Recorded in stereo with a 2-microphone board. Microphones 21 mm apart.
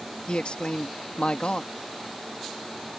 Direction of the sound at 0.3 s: 70° left (ahead or behind).